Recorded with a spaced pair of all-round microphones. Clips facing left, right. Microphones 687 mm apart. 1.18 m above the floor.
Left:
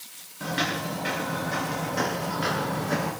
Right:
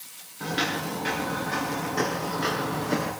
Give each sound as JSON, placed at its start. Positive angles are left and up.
{"t": 0.4, "sound": "footsteps", "side_deg": 10, "distance_m": 9.0}